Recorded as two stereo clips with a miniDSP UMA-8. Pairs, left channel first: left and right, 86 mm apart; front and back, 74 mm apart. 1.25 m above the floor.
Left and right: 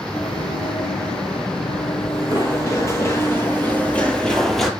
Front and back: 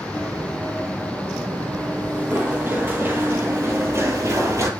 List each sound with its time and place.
0.1 s running footsteps: 105° left, 3 m; by 4.7 s straight behind, 1.6 m